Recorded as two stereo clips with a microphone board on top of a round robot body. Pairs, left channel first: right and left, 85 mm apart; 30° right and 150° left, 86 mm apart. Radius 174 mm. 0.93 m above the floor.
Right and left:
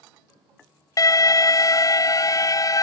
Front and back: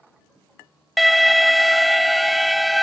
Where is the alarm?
120° right.